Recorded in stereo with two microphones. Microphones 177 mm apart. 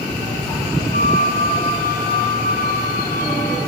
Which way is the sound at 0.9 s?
50° left (ahead or behind).